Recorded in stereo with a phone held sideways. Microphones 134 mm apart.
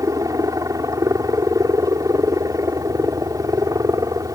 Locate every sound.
0.0 s a helicopter: 25° right (ahead or behind)